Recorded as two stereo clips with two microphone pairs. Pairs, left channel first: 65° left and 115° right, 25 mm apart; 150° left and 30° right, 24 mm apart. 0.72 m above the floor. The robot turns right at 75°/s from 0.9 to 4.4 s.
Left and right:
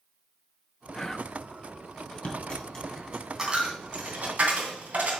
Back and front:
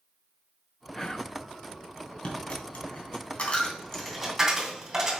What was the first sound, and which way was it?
Whispering, 95° left.